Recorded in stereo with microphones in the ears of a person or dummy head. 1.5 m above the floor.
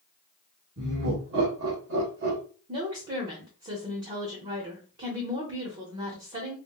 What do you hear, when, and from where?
0.8 s laughter: 55° right (ahead or behind), 1.7 m; by 2.4 s 50° right (ahead or behind), 1.3 m
2.7 s a woman speaking: 35° right (ahead or behind), 0.9 m